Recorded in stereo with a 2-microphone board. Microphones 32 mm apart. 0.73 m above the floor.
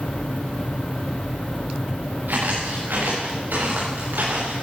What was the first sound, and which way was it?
Footsteps, 80° right.